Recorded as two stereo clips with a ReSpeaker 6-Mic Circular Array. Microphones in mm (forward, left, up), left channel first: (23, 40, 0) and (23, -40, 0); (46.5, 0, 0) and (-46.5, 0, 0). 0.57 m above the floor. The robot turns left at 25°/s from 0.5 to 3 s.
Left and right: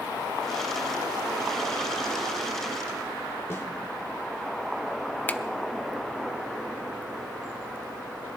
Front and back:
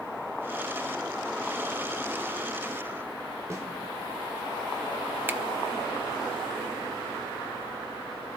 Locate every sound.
3.5 s a snare drum: 130° left, 1.5 m
5.3 s a finger snap: 135° left, 0.5 m